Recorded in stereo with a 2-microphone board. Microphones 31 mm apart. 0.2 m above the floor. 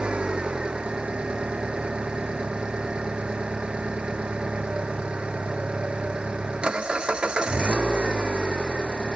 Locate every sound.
0.0 s an engine running: 35° right (ahead or behind)